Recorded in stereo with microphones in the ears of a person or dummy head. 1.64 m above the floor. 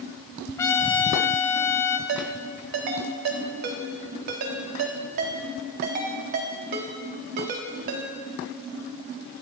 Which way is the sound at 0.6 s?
15° left (ahead or behind).